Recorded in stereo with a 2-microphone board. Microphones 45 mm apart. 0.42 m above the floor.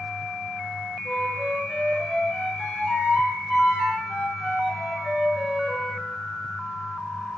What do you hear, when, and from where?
1.1 s a flute: 5° right (ahead or behind), 7 m